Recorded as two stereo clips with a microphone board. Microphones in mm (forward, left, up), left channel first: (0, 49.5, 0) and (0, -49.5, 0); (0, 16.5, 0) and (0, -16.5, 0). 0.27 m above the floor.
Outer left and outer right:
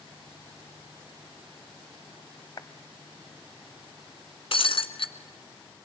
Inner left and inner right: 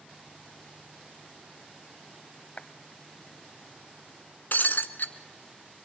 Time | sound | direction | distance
2.6 | a clap | 40° left (ahead or behind) | 1.5 m
4.5 | breaking glass | 60° left (ahead or behind) | 1.6 m